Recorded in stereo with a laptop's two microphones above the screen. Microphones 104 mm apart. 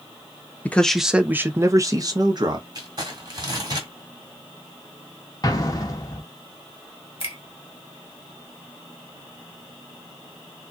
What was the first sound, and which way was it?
A man speaking, 15° left (ahead or behind).